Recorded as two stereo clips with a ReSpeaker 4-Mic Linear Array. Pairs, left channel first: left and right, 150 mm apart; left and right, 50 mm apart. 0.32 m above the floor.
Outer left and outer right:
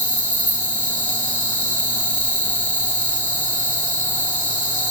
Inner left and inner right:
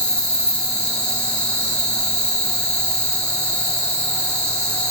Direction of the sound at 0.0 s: 10° left (ahead or behind).